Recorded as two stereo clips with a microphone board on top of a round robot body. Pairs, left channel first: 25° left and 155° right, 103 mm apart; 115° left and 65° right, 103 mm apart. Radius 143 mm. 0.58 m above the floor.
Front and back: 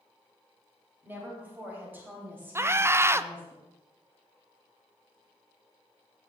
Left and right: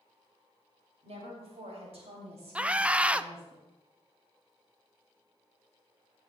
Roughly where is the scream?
Behind right.